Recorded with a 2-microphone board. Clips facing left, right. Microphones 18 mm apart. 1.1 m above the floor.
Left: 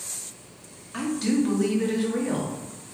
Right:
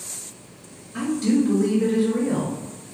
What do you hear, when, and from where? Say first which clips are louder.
0.9 s a woman speaking: right 3 dB; 70° left (ahead or behind), 0.9 m